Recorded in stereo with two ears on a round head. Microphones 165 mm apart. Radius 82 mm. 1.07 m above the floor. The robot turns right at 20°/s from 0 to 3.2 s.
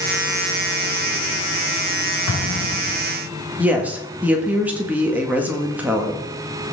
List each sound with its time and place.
2.3 s an explosion: 85° left, 2 m; by 3.0 s 80° left, 2 m
3.6 s a woman speaking: 10° right (ahead or behind), 1.8 m